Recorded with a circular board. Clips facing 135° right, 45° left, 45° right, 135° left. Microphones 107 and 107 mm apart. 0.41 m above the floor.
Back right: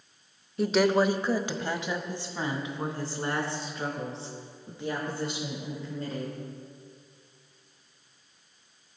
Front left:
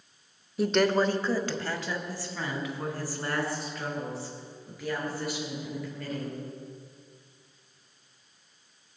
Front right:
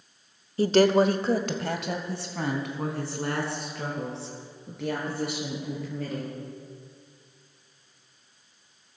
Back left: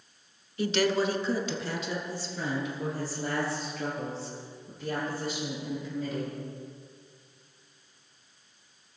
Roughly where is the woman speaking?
Ahead right.